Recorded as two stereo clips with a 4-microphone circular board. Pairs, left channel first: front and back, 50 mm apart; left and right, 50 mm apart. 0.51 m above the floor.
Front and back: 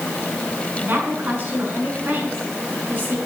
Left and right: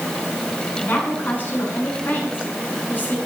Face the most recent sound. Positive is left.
turn(degrees=135)